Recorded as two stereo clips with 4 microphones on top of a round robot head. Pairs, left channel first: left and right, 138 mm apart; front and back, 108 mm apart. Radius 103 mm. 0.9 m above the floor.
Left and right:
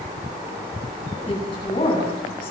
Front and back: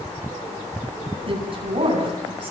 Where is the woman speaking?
150° left, 10 m.